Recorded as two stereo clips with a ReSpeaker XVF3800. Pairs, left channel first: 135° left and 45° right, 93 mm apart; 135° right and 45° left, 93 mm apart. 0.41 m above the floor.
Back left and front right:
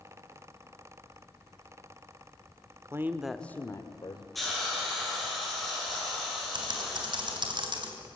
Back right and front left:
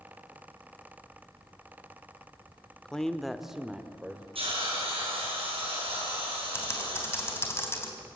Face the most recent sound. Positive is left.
turn(degrees=-75)